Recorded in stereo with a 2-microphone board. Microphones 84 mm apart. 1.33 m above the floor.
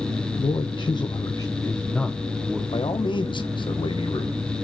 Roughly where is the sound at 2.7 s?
Left.